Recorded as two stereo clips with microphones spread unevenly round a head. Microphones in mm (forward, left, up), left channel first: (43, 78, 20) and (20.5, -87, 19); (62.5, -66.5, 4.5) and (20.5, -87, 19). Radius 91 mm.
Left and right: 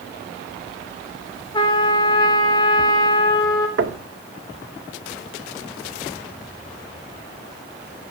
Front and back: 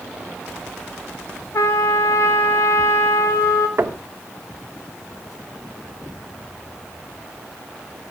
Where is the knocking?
130° right, 1.7 m.